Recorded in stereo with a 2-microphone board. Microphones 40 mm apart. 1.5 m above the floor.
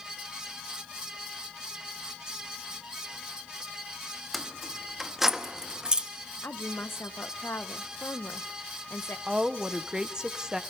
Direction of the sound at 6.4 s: 85° left.